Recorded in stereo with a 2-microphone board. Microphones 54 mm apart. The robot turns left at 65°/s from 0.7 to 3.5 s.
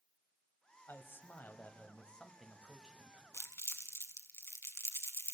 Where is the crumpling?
65° left (ahead or behind), 1.2 m; by 5.3 s 60° left (ahead or behind), 1.2 m.